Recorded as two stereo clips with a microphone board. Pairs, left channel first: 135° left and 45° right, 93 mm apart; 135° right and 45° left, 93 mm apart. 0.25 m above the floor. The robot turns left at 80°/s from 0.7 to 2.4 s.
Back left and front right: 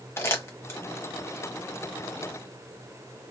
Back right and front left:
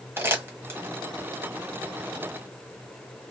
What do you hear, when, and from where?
0.2 s crumpling: 95° left, 1.1 m; by 0.8 s 90° left, 1.1 m